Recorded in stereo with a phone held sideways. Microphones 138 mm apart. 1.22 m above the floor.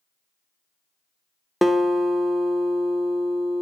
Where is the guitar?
Centre (ahead or behind), 0.8 m.